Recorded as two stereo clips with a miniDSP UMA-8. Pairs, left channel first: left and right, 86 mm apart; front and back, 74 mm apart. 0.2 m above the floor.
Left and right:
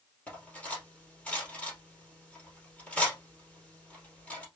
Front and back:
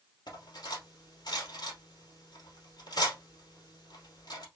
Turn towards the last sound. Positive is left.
turn(degrees=15)